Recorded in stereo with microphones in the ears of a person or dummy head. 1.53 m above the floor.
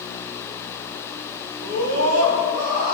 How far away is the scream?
About 2.5 m.